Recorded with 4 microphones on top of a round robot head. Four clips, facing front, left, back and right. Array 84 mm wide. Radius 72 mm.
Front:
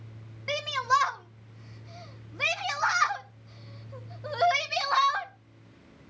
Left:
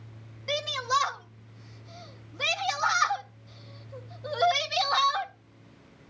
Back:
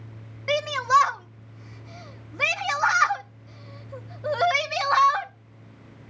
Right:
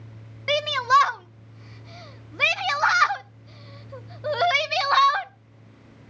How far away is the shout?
About 0.8 m.